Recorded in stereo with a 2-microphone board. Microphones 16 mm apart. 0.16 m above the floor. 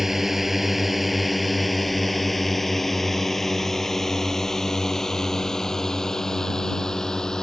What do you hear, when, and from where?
0.0 s a drone: 25° right (ahead or behind); by 7.4 s 35° left (ahead or behind)